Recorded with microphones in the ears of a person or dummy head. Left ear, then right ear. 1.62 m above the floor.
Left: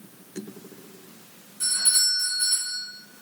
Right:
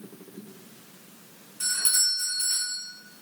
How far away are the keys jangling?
I don't hear keys jangling.